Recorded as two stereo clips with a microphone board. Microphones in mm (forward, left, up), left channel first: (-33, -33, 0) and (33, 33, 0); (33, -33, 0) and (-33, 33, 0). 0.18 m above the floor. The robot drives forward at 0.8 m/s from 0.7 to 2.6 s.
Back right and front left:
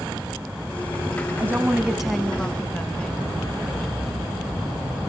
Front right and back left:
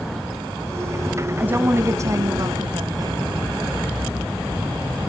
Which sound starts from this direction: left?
A woman speaking, at 1.4 s.